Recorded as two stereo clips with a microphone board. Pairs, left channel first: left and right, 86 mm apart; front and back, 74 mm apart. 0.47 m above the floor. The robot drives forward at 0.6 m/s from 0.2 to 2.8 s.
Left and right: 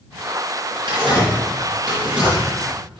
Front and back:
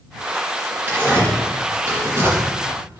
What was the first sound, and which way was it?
Tearing paper, 110° right.